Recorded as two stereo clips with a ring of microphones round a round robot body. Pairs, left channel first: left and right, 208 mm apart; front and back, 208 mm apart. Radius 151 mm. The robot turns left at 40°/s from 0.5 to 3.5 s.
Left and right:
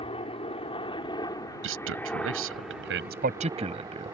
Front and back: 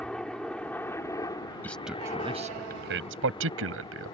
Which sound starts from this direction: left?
A helicopter, at 0.0 s.